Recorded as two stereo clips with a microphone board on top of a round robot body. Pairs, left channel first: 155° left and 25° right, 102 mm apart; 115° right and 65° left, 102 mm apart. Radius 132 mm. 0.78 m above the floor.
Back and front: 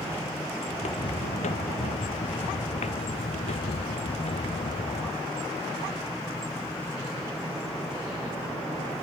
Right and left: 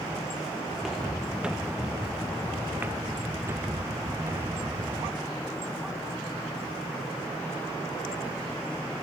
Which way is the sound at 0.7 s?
155° left.